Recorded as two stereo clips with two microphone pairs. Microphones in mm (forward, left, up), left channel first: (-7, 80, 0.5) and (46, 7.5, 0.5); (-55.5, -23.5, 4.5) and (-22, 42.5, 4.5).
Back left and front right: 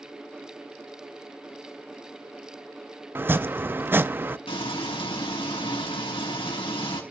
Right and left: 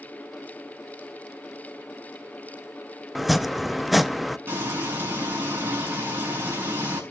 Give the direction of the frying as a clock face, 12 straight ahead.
8 o'clock.